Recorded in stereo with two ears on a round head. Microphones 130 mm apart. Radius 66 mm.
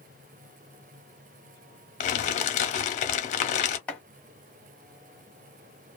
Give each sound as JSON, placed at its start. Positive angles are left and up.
{"t": 2.0, "sound": "crumpling", "side_deg": 50, "distance_m": 0.6}
{"t": 3.9, "sound": "chopping", "side_deg": 10, "distance_m": 0.8}